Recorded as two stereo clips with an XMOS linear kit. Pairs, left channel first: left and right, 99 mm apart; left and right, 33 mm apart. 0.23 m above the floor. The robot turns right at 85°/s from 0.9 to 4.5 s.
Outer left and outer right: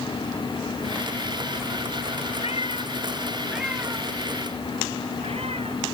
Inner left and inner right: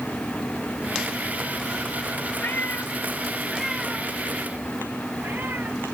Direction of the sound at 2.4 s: 85° left.